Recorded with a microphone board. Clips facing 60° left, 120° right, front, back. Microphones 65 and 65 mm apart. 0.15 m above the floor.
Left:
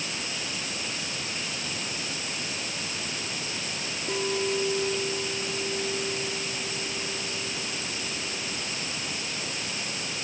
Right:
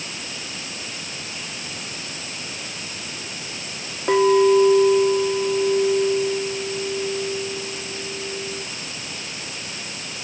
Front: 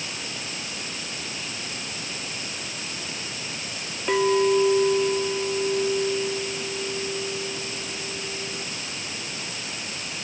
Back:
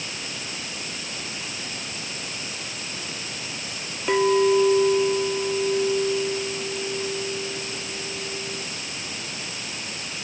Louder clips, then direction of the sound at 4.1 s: Right 14 dB, back 1 dB; 95° right.